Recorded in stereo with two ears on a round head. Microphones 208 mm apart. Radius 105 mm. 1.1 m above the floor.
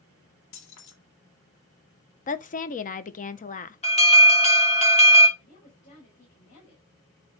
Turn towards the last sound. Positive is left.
turn(degrees=35)  # may be behind; listen again after turning